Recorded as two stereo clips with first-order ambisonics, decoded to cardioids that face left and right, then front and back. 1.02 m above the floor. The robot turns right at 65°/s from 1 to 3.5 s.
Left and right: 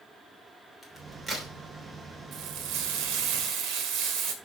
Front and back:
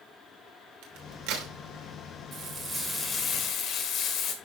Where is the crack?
170° left, 3 m; by 1.5 s 155° right, 3 m.